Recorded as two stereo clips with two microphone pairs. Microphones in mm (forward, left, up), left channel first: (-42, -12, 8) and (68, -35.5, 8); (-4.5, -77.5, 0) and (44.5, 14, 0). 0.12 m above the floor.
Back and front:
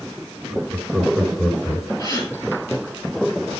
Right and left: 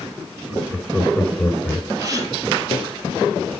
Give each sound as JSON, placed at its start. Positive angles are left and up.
{"t": 0.5, "sound": "laughter", "azimuth_deg": 55, "distance_m": 1.7}
{"t": 2.0, "sound": "a gasp", "azimuth_deg": 115, "distance_m": 1.8}